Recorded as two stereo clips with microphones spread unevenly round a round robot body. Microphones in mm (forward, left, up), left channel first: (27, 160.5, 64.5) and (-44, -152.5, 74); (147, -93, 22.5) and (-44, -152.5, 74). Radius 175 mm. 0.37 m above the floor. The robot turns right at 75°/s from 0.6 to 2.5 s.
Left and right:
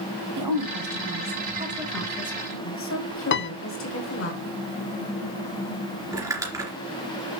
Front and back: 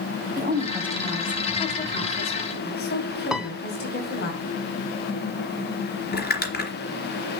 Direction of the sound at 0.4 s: 110° right.